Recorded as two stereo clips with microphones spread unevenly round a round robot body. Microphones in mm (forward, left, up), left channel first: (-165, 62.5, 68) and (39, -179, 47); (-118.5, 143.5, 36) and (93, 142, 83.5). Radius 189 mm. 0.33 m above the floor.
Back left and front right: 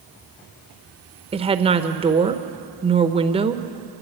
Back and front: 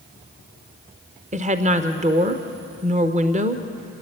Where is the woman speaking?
30° right, 0.8 m.